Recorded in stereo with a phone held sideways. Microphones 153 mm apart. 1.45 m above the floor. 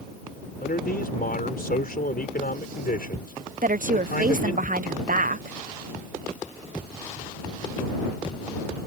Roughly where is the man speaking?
Left.